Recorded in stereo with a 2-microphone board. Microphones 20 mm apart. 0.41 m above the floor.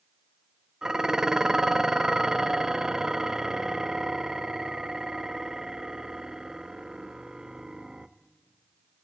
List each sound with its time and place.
0.8 s dishes clattering: 30° right (ahead or behind), 0.6 m